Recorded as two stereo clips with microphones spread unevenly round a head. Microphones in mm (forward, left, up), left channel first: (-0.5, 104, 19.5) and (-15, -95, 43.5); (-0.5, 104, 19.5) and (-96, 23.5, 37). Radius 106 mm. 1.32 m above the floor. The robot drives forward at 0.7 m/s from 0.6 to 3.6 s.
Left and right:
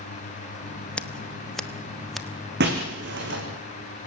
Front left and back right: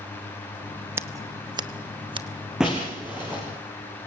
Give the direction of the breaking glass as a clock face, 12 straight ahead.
2 o'clock.